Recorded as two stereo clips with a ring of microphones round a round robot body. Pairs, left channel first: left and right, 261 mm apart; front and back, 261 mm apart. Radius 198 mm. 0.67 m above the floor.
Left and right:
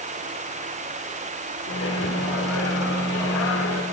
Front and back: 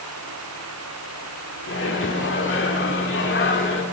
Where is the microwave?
45° left, 1.7 m.